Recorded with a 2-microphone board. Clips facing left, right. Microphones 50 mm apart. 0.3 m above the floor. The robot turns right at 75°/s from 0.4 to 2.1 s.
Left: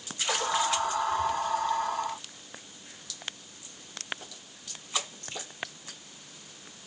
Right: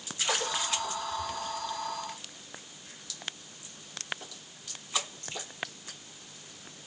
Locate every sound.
Only background noise.